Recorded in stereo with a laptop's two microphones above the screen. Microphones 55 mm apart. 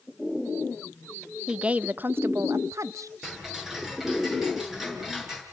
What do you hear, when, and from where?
1.5 s a woman speaking: 15° right (ahead or behind), 0.8 m; by 3.1 s 75° right (ahead or behind), 1.0 m
3.2 s ticking: 10° right (ahead or behind), 6.5 m